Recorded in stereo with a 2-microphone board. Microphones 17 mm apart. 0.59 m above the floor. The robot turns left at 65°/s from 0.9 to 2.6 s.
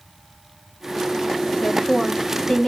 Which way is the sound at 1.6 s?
145° left.